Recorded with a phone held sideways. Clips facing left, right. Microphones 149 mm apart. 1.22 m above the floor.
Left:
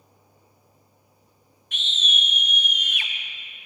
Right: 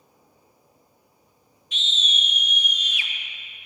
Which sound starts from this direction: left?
A scream, at 1.7 s.